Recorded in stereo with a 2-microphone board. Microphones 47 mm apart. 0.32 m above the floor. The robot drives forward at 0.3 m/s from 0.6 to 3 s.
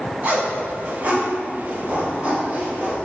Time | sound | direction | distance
0.2 | a zipper | 45° right (ahead or behind) | 1.2 m